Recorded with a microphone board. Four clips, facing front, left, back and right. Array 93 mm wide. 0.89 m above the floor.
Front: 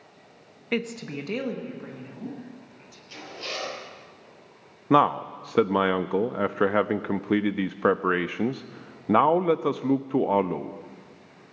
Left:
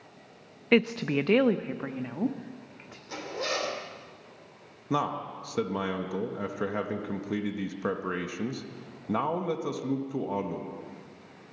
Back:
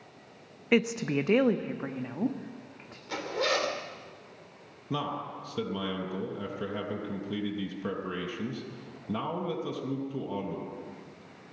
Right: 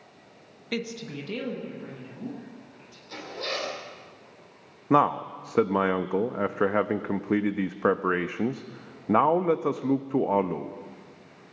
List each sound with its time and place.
0.7 s a woman speaking: 105° left, 0.6 m; by 3.0 s 130° left, 2 m
3.1 s a zipper: 170° left, 3 m
4.9 s a man speaking: 30° right, 0.6 m